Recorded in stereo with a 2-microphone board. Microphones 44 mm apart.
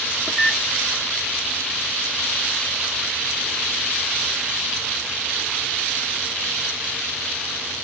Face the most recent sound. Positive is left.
turn(degrees=10)  # may be behind; listen again after turning